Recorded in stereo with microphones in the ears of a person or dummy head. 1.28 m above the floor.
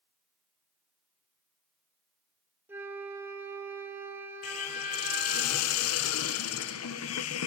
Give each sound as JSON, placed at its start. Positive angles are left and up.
{"t": 2.7, "sound": "a flute", "side_deg": -10, "distance_m": 1.8}
{"t": 4.4, "sound": "a hiss", "side_deg": 80, "distance_m": 0.7}